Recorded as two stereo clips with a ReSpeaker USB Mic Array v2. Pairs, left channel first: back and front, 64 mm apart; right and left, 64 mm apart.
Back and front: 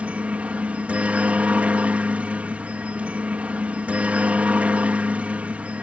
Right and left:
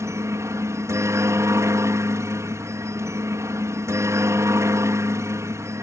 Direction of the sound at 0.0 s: 65° left.